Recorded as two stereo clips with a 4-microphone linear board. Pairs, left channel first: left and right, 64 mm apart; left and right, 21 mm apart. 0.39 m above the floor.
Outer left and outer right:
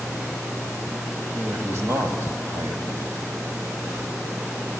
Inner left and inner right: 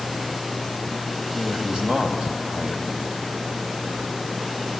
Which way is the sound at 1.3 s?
55° right (ahead or behind).